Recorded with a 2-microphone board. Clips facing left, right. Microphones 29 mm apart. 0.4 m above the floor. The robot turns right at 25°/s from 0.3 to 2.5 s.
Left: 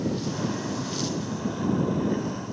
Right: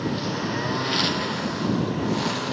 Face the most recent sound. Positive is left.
turn(degrees=-90)